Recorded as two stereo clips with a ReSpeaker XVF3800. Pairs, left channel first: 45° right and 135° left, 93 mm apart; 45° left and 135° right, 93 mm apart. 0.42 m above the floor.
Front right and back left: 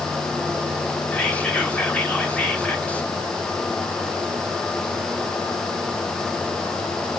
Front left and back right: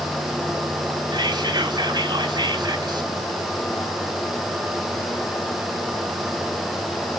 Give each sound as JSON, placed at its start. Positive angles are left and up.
{"t": 1.1, "sound": "whispering", "azimuth_deg": -115, "distance_m": 1.8}